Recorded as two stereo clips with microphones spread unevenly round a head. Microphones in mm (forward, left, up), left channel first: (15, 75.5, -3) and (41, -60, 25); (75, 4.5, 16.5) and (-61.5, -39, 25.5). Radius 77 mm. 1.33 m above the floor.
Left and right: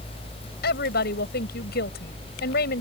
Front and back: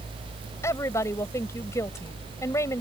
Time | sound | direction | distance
0.6 | a woman speaking | 90° left | ?